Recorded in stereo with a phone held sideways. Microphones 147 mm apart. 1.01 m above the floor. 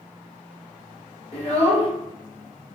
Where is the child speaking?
45° left (ahead or behind), 1.5 m.